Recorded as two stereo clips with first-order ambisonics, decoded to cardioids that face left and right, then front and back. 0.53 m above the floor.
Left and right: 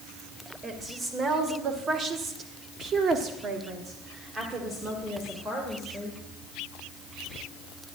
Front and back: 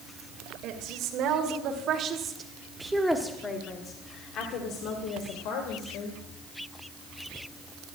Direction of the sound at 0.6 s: 160° right.